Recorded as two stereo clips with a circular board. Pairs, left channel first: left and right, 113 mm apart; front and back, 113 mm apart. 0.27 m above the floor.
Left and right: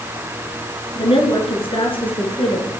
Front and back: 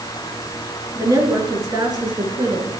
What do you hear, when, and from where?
0.9 s a woman speaking: 120° left, 4 m; by 2.7 s 130° left, 4.5 m